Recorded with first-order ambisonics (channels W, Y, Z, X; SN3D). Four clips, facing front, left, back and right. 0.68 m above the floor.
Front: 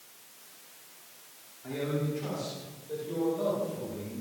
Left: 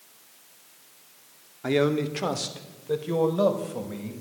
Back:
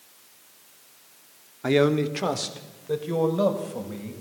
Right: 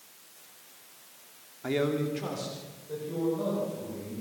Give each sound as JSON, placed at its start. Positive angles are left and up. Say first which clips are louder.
{"t": 1.6, "sound": "a man speaking", "louder": "left 5 dB, back 12 dB", "azimuth_deg": 160, "distance_m": 1.6}